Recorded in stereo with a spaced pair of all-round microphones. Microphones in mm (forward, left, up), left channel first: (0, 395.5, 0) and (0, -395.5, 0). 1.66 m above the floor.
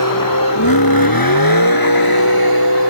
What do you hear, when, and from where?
0.0 s a vehicle: 25° left (ahead or behind)